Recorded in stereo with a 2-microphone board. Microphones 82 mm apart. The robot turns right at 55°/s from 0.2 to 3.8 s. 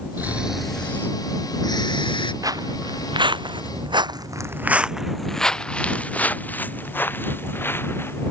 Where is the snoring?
25° right; by 2.3 s 95° left.